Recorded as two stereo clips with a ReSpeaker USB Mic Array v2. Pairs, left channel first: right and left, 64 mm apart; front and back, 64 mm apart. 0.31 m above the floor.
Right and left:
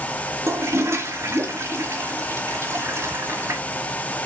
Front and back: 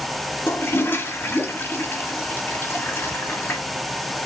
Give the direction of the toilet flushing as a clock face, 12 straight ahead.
10 o'clock.